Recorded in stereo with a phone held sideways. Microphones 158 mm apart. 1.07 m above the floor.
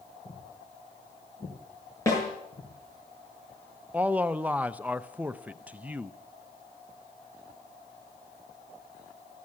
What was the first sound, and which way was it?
Footsteps, 45° left (ahead or behind).